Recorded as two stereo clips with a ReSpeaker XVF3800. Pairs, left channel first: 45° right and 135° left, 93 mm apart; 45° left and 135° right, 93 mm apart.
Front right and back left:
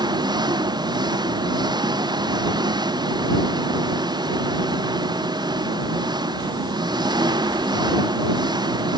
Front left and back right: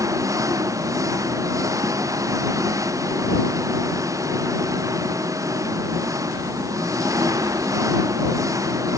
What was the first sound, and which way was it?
An engine running, 175° left.